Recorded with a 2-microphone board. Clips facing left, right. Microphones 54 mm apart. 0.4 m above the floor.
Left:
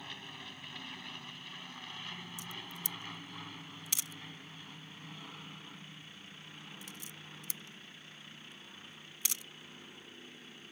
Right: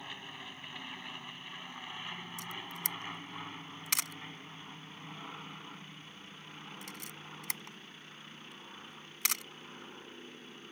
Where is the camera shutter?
70° right (ahead or behind).